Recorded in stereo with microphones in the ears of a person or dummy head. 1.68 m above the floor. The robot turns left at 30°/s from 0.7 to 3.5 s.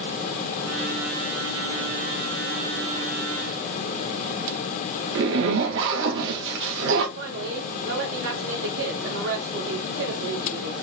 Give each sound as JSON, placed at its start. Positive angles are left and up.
{"t": 5.2, "sound": "a zipper", "side_deg": -65, "distance_m": 1.0}
{"t": 7.2, "sound": "a woman speaking", "side_deg": -65, "distance_m": 1.3}